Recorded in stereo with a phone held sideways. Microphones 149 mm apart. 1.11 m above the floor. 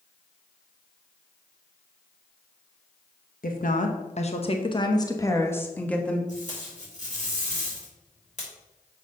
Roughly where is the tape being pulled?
Left.